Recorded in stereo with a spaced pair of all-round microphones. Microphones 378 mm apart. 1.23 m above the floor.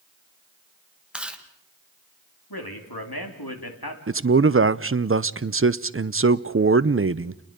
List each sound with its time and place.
1.1 s chewing: 5° right (ahead or behind), 1.6 m
2.5 s a man speaking: 70° left (ahead or behind), 3 m
4.1 s a man speaking: 35° right (ahead or behind), 0.5 m